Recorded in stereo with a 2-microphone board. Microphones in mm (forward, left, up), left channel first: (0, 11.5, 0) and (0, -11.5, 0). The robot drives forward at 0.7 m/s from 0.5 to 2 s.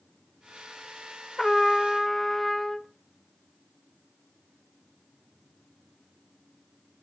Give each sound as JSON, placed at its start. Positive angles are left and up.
{"t": 1.4, "sound": "a trumpet", "side_deg": 15, "distance_m": 0.6}